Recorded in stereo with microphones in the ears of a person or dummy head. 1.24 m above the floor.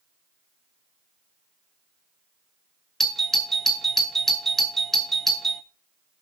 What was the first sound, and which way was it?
A doorbell, centre (ahead or behind).